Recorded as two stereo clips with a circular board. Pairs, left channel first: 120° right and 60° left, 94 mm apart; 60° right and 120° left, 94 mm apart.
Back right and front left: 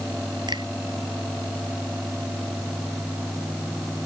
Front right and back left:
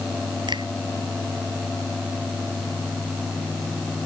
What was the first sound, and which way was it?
A finger snap, 90° left.